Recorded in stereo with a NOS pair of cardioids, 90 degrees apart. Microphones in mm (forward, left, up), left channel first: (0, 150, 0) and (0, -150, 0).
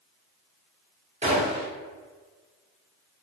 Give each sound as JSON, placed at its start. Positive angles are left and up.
{"t": 1.2, "sound": "a gunshot", "azimuth_deg": -20, "distance_m": 1.6}